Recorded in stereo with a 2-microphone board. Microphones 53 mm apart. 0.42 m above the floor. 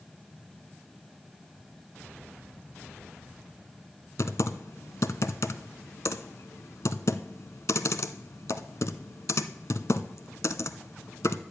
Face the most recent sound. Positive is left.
turn(degrees=70)  # may be behind; listen again after turning